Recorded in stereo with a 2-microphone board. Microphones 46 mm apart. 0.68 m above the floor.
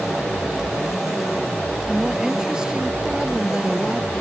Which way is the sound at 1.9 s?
15° right (ahead or behind).